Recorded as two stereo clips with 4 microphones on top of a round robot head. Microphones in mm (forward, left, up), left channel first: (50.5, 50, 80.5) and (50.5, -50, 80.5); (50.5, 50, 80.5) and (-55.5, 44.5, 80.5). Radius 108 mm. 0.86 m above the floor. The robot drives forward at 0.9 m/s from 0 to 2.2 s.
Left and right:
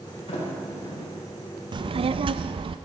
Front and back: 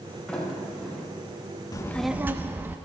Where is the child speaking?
50° right, 0.6 m; by 2.8 s 105° right, 0.5 m.